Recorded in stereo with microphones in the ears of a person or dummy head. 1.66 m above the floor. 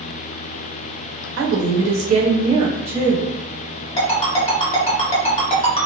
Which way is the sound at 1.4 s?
60° right (ahead or behind).